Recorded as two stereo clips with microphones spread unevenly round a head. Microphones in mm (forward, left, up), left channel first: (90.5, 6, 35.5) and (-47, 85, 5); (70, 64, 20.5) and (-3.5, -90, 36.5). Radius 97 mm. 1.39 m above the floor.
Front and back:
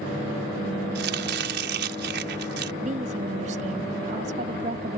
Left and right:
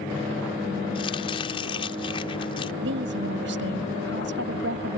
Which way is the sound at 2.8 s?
150° right.